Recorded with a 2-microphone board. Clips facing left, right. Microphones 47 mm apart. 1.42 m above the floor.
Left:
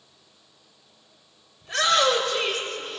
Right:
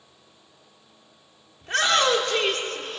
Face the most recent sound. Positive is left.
turn(degrees=-70)  # may be behind; listen again after turning